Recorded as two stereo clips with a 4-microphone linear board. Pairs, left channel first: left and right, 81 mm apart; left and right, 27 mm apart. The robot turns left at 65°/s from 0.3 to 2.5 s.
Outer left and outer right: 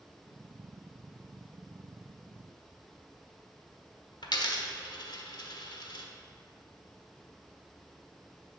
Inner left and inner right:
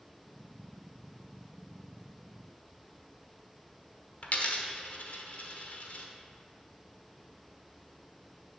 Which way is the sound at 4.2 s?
60° left (ahead or behind).